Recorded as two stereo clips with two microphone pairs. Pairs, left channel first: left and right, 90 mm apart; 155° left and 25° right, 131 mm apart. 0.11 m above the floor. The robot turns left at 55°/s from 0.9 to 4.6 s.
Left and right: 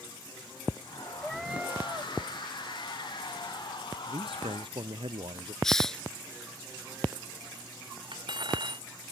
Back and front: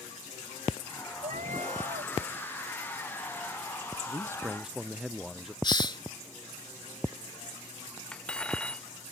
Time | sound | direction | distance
1.2 | a cat meowing | 5° left | ?
4.0 | a man speaking | 80° right | ?
5.6 | a hiss | 170° left | ?
8.1 | cutlery clinking | 120° right | ?